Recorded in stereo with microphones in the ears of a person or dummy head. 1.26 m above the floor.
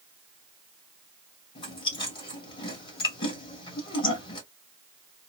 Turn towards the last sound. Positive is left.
turn(degrees=30)  # may be behind; listen again after turning